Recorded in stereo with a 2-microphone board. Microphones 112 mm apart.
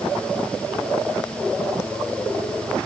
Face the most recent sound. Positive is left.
No sound to turn to.